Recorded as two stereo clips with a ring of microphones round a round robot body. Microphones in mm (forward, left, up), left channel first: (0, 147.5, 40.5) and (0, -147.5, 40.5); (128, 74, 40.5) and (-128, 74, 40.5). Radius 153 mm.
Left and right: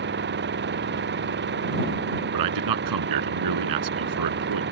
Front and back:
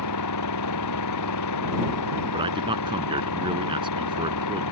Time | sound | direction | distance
0.0 | an engine running | 35° right | ?
2.3 | a man speaking | 105° right | ?